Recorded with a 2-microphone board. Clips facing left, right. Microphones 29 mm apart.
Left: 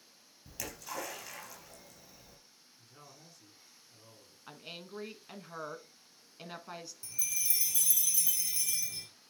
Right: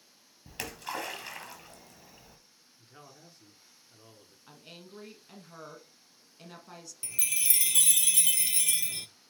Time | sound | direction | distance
0.5 | a splash | 50° right (ahead or behind) | 2.5 m
2.8 | a man speaking | 40° right (ahead or behind) | 2.0 m
4.5 | a woman speaking | 25° left (ahead or behind) | 1.1 m
7.0 | a chime | 65° right (ahead or behind) | 0.6 m